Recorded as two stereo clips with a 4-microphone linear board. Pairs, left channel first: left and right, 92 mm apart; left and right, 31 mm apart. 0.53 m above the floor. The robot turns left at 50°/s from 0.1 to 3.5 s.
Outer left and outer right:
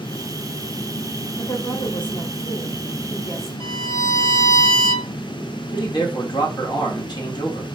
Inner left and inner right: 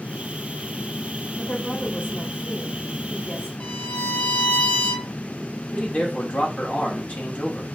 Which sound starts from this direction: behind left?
A woman speaking, at 1.4 s.